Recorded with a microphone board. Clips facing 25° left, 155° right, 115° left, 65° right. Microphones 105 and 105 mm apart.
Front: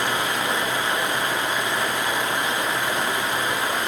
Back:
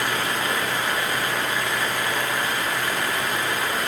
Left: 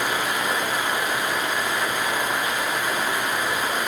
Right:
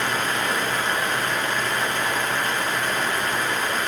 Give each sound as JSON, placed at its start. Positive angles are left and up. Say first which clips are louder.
{"t": 0.0, "sound": "running water", "louder": "front 1 dB, even", "azimuth_deg": 55, "distance_m": 1.1}